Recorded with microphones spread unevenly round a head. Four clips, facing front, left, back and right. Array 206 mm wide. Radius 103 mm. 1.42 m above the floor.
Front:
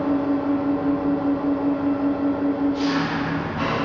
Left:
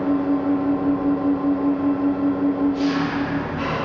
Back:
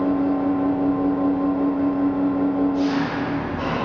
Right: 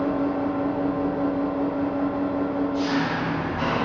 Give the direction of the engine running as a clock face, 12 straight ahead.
1 o'clock.